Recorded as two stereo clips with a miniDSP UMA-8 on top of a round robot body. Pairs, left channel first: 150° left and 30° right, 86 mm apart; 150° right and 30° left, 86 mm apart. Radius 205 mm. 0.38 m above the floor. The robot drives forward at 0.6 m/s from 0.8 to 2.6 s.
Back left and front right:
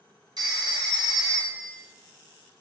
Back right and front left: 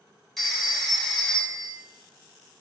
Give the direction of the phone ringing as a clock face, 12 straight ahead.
2 o'clock.